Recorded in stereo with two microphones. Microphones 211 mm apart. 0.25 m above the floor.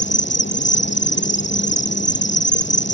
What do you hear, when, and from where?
0.0 s an insect: 60° left (ahead or behind)